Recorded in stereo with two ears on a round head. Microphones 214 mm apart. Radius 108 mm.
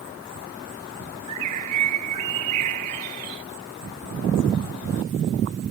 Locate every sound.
1.3 s a bird: 75° right (ahead or behind)